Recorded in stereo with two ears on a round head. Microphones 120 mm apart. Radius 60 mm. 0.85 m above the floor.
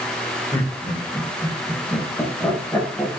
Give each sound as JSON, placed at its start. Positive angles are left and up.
{"t": 0.5, "sound": "laughter", "side_deg": 25, "distance_m": 2.5}